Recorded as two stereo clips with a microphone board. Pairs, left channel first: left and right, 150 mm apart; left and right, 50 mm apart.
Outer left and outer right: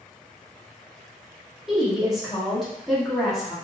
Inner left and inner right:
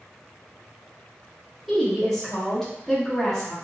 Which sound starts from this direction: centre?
A woman speaking, at 1.7 s.